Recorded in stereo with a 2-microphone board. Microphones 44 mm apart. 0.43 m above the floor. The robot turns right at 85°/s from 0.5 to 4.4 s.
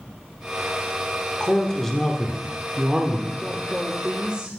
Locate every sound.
1.4 s a man speaking: 20° left (ahead or behind), 0.8 m; by 3.3 s 20° right (ahead or behind), 0.8 m
3.4 s a woman speaking: 5° left (ahead or behind), 0.8 m; by 4.5 s 20° right (ahead or behind), 0.8 m